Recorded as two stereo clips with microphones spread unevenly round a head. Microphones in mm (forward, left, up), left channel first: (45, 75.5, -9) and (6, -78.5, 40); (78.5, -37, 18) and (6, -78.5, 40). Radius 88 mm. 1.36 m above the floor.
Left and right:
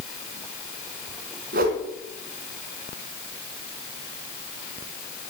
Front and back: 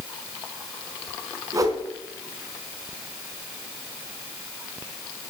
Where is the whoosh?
120° right, 2.5 m.